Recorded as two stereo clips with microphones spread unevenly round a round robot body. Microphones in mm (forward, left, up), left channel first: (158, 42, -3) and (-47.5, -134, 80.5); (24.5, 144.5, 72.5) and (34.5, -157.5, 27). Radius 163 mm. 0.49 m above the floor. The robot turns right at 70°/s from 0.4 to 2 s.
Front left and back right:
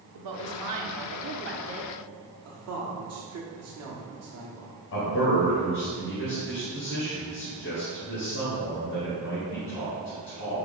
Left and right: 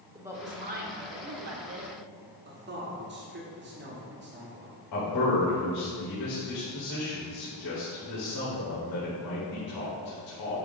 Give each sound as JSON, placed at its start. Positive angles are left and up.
{"t": 0.1, "sound": "a woman speaking", "azimuth_deg": -160, "distance_m": 1.2}
{"t": 2.5, "sound": "a man speaking", "azimuth_deg": -110, "distance_m": 1.3}
{"t": 4.9, "sound": "a man speaking", "azimuth_deg": 65, "distance_m": 2.0}